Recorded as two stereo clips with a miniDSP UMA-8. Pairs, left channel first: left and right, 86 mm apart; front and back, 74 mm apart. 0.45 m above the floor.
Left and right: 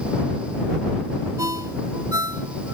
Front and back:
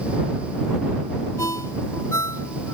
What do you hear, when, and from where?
1.4 s a ringtone: 40° right